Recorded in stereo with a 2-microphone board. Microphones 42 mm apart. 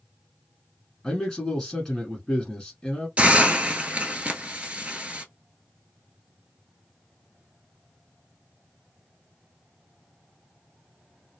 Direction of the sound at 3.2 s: 30° right (ahead or behind).